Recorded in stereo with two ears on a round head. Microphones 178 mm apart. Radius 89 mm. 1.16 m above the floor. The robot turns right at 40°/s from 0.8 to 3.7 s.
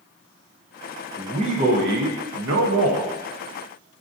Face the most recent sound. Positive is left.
turn(degrees=-55)